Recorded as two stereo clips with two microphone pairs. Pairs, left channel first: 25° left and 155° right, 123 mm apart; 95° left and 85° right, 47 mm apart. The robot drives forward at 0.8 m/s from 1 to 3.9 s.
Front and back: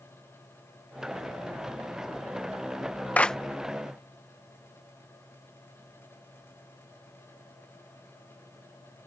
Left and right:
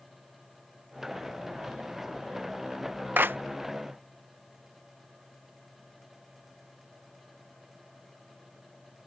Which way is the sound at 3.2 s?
50° right.